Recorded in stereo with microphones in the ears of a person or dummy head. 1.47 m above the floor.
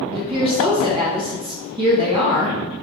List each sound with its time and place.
0.1 s a woman speaking: 20° right (ahead or behind), 0.8 m